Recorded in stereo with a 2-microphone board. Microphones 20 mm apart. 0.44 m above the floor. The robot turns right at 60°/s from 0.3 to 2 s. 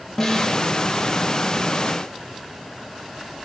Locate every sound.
0.2 s a snare drum: 20° left (ahead or behind), 0.7 m; by 0.6 s 10° left (ahead or behind), 0.7 m